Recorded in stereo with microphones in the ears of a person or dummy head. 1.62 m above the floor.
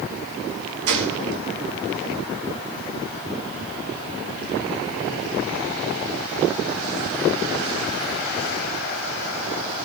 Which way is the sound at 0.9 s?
65° right (ahead or behind).